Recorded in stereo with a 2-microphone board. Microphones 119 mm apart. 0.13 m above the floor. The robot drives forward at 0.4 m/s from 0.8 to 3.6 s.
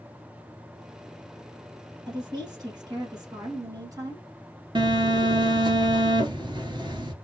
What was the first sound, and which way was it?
A woman speaking, 35° right (ahead or behind).